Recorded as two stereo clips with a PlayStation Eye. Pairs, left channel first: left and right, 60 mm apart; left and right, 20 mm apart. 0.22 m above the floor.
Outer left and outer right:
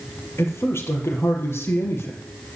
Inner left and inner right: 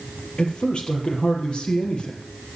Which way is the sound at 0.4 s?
50° left (ahead or behind).